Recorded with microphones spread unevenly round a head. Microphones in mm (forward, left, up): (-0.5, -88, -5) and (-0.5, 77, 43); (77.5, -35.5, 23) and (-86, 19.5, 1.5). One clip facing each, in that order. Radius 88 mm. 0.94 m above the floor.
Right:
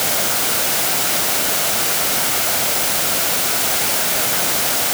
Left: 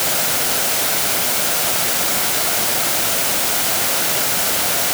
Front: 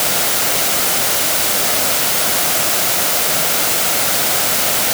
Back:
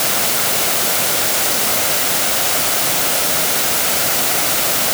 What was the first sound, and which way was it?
Only background noise.